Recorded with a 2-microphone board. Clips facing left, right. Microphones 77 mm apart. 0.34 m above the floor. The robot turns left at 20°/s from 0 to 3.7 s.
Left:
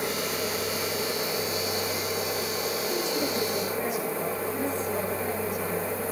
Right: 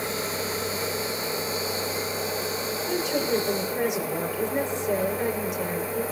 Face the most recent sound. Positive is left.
turn(degrees=-80)